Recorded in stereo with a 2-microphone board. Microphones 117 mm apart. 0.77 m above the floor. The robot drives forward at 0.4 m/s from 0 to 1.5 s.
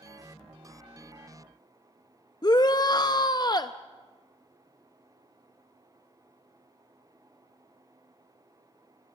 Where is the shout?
35° left (ahead or behind), 0.5 m.